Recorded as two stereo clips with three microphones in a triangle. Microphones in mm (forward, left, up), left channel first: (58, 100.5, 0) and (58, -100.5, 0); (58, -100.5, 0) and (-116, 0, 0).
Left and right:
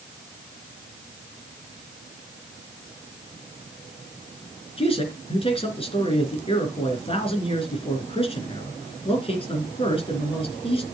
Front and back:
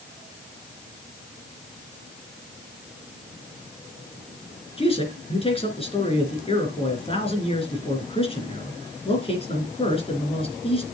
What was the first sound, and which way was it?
A man speaking, 30° left.